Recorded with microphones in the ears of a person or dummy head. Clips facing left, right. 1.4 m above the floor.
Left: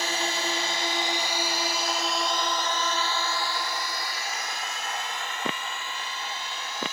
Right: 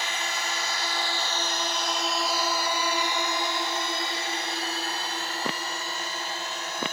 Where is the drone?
35° left (ahead or behind); by 6.9 s 40° right (ahead or behind).